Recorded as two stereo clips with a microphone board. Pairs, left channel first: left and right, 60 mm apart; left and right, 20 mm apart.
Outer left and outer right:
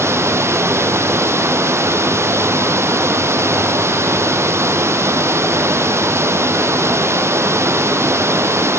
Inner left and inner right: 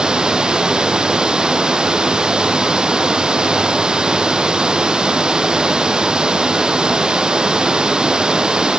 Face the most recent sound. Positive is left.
turn(degrees=-50)  # may be behind; listen again after turning